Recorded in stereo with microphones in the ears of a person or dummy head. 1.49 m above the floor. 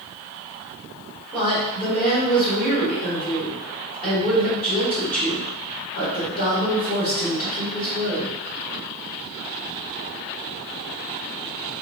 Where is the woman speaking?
45° left (ahead or behind), 1.6 m.